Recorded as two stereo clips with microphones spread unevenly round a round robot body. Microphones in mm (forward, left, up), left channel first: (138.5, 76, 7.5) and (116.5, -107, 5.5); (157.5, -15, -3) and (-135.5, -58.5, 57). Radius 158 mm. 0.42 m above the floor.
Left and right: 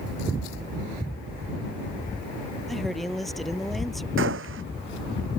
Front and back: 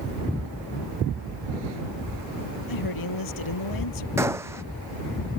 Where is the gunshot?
90° right.